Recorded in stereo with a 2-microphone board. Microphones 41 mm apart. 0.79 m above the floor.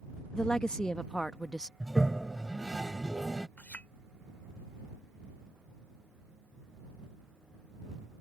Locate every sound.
0.3 s a woman speaking: 20° left (ahead or behind)
1.8 s a toilet flushing: 5° right (ahead or behind)
3.6 s a clink: 45° left (ahead or behind)